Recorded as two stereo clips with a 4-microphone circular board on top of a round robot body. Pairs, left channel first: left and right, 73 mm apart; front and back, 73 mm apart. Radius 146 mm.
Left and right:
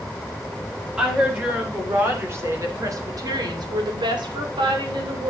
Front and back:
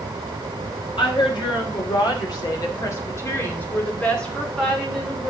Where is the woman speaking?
15° right, 3.5 m; by 5.3 s 95° right, 3 m.